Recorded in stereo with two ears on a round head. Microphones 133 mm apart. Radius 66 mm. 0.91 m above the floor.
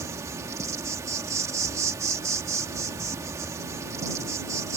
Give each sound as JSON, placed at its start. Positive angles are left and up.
{"t": 0.0, "sound": "an insect", "side_deg": -20}